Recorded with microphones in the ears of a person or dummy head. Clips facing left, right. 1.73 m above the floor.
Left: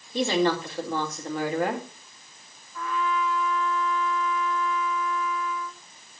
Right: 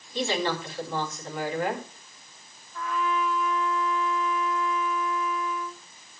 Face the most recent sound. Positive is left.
turn(degrees=-5)  # may be behind; listen again after turning